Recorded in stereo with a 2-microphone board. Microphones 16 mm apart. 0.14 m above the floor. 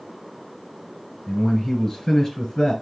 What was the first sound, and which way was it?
A man speaking, 40° left (ahead or behind).